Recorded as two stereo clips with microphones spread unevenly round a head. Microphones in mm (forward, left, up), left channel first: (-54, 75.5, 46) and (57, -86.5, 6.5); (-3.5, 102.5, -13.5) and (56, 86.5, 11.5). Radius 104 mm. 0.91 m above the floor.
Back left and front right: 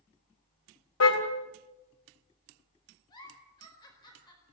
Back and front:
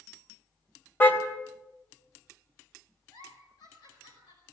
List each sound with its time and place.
1.0 s a car horn: 100° left, 3 m
3.1 s a giggle: 165° right, 4.5 m